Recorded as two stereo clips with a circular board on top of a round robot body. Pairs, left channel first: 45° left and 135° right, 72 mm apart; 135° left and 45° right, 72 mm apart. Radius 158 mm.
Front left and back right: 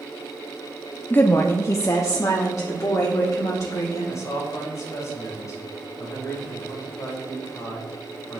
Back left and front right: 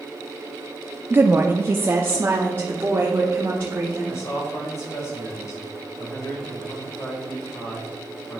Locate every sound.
1.1 s a woman speaking: 5° right, 0.7 m; by 4.2 s 15° left, 2 m
4.1 s a man speaking: 85° left, 3.5 m